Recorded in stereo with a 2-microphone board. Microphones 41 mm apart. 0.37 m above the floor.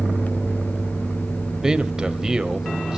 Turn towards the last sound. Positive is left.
turn(degrees=-20)  # may be behind; listen again after turning